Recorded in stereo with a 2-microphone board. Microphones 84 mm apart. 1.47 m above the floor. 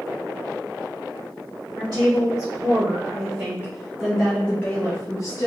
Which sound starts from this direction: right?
A woman speaking, at 1.8 s.